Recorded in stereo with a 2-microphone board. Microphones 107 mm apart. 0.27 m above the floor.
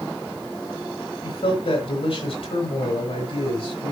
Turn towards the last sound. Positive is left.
turn(degrees=65)  # may be behind; listen again after turning